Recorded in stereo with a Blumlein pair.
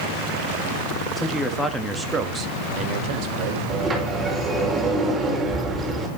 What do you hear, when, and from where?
1.2 s a man speaking: 15° left, 1.9 m; by 3.6 s 45° right, 2.5 m
3.7 s a sliding door: 10° right, 5 m